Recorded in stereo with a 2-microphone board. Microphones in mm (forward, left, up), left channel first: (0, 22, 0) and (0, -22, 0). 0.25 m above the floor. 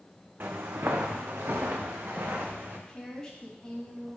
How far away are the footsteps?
About 0.9 m.